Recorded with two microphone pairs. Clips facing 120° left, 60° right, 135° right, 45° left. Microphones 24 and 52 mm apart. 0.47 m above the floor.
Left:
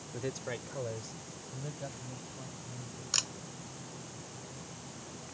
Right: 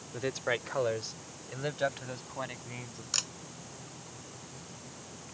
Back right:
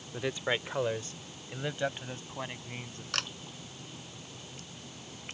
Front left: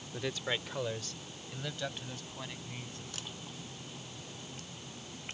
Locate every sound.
0.1 s a man speaking: 80° right; by 3.0 s 70° right
3.1 s a camera shutter: 150° right